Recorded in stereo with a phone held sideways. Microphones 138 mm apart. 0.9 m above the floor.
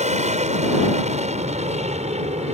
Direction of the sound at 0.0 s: 55° right (ahead or behind).